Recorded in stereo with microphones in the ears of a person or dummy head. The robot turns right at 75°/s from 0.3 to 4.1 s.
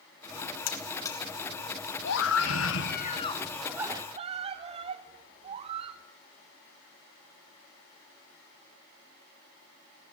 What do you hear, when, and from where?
0.7 s a buzzer: 50° left (ahead or behind), 1.6 m; by 1.2 s 10° left (ahead or behind), 1.6 m
2.0 s a scream: 60° left, 1.5 m; by 6.0 s 145° right, 1.5 m